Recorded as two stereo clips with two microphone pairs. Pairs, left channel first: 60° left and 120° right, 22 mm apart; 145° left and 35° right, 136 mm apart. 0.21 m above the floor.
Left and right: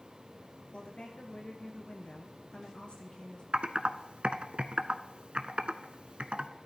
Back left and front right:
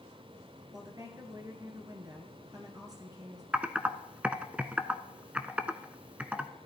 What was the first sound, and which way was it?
A woman speaking, 25° left.